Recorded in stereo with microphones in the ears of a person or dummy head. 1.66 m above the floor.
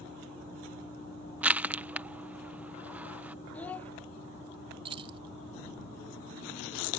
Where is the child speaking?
5° left (ahead or behind).